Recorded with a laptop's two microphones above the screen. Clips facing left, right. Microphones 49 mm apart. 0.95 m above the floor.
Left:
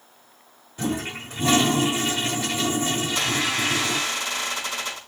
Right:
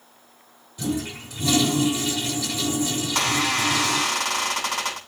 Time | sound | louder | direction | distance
0.8 | a toilet flushing | even | 40° left (ahead or behind) | 1.0 m
3.0 | a squeak | right 1 dB | 65° right (ahead or behind) | 6 m